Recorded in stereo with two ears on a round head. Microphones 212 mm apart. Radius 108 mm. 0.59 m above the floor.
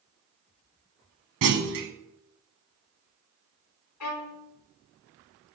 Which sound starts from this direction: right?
A clunk, at 1.4 s.